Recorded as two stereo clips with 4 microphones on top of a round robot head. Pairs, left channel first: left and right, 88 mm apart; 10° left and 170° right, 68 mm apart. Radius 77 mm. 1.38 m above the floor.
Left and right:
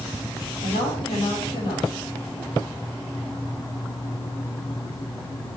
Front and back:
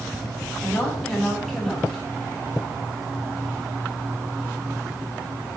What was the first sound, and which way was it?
A woman speaking, 100° left.